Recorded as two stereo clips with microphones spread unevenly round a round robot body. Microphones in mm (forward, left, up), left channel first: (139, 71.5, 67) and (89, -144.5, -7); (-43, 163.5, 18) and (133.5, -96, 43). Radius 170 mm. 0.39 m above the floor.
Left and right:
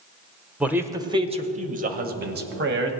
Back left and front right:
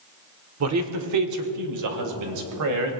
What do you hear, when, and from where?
0.6 s a man speaking: 40° right, 1.4 m; by 2.9 s 95° right, 2.5 m